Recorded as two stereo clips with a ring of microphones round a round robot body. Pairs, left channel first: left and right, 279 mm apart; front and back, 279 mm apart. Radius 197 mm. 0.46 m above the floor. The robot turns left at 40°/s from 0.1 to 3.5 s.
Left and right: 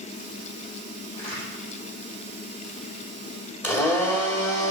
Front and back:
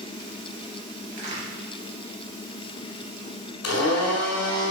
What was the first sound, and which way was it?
A crack, 170° left.